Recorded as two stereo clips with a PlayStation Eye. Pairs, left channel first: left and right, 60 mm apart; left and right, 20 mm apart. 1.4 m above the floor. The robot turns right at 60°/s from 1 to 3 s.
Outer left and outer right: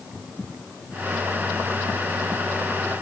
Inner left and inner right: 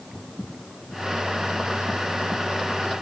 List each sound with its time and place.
Only background noise.